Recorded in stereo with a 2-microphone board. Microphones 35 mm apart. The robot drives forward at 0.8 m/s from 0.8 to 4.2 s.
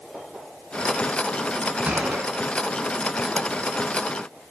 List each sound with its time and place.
1.9 s a gunshot: 45° right (ahead or behind), 2.0 m